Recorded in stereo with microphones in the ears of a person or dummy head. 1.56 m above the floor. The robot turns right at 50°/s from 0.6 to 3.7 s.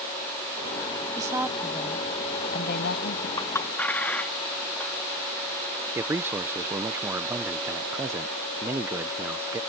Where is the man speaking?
10° right (ahead or behind).